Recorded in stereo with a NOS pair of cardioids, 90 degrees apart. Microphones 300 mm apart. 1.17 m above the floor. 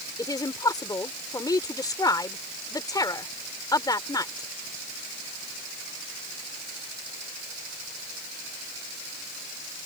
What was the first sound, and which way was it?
A woman speaking, 10° left.